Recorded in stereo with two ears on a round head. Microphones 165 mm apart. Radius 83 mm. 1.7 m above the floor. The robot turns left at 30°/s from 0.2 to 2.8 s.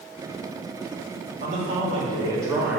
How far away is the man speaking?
About 4 m.